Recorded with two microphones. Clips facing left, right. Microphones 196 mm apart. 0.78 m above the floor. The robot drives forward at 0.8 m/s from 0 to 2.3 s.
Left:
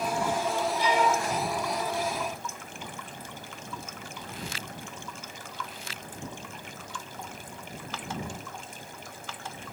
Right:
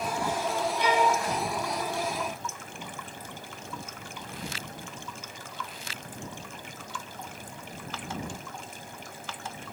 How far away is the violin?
About 1.5 m.